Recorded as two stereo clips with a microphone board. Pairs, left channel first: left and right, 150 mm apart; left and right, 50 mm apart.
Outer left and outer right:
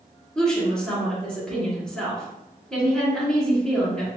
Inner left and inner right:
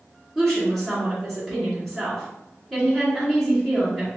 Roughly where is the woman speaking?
Centre.